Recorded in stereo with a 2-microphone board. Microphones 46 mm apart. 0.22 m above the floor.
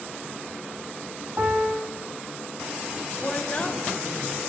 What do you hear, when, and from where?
1.4 s a piano: 55° right (ahead or behind), 3.5 m
3.2 s a woman speaking: 30° left (ahead or behind), 1.1 m